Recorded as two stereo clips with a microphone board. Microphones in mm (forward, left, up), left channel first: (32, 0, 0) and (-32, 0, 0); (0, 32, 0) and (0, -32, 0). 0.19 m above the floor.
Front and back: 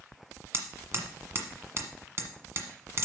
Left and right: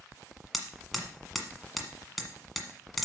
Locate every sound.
0.5 s hammering: straight behind, 1.5 m